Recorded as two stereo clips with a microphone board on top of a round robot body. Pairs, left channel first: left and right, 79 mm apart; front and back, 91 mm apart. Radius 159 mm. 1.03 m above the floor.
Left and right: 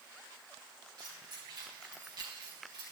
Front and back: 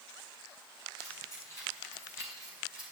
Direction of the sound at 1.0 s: 55° right.